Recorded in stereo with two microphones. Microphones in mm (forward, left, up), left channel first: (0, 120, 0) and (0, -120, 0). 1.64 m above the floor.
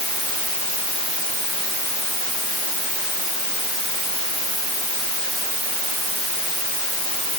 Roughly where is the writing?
No writing in this recording.